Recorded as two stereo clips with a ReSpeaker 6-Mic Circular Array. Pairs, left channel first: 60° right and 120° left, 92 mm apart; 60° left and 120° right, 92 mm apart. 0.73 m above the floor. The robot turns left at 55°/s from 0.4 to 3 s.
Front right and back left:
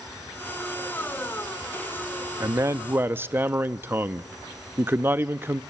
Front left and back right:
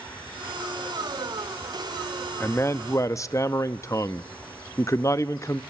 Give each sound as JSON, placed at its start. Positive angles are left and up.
{"t": 2.4, "sound": "a man speaking", "azimuth_deg": 105, "distance_m": 0.7}